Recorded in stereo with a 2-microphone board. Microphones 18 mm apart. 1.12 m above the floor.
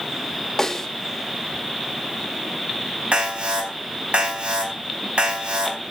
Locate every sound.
0.6 s a snare drum: 30° left (ahead or behind), 2.5 m
3.1 s an alarm: 80° right, 5.5 m